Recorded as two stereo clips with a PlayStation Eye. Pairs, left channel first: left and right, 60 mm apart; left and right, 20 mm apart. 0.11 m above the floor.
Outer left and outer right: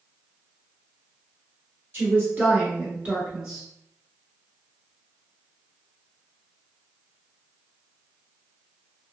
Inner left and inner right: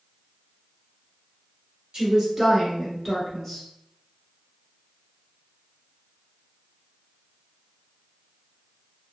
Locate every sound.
1.9 s a woman speaking: 35° right (ahead or behind), 1.5 m; by 3.6 s centre (ahead or behind), 1.1 m